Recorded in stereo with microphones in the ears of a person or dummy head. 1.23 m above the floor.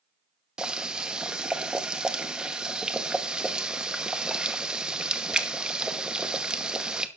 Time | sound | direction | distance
0.6 | boiling | 5° right (ahead or behind) | 1.0 m